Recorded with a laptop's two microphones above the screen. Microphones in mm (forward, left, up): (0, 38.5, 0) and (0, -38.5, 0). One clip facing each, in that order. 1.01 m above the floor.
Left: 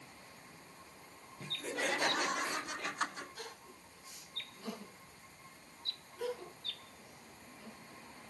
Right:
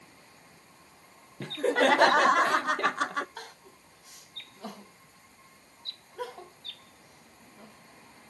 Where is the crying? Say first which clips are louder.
Right 4 dB; 65° right (ahead or behind), 4.5 m.